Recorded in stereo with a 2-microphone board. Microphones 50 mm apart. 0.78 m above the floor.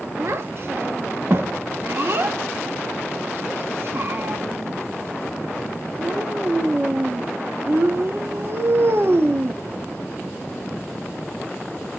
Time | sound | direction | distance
0.2 | a child speaking | 50° right (ahead or behind) | 0.9 m